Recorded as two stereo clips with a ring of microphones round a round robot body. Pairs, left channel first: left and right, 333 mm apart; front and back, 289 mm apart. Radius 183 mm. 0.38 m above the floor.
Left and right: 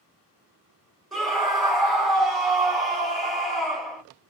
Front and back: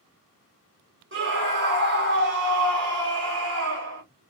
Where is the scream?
Straight behind, 1.8 m.